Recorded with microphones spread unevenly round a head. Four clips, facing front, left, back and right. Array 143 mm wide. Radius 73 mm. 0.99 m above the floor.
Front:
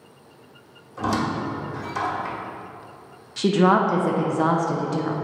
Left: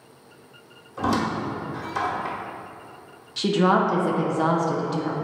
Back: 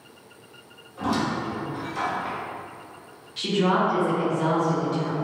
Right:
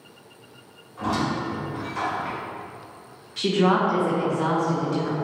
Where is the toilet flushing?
No toilet flushing in this recording.